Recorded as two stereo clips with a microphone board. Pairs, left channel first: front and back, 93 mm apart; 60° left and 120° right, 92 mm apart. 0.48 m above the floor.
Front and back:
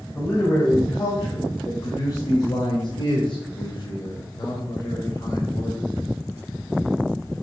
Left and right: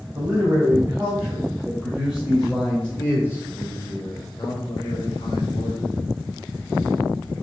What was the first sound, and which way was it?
A man speaking, 60° right.